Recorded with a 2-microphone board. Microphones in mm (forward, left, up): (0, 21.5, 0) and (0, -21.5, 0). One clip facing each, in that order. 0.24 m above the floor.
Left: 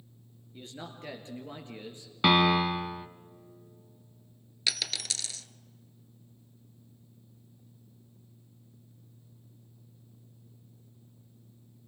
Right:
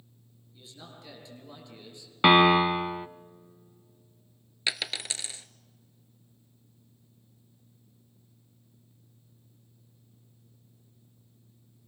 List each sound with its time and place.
0.5 s a man speaking: 50° left (ahead or behind), 4 m; by 2.1 s 30° left (ahead or behind), 4 m
2.2 s a piano: 25° right (ahead or behind), 0.7 m
4.7 s a dropped coin: 25° right (ahead or behind), 0.7 m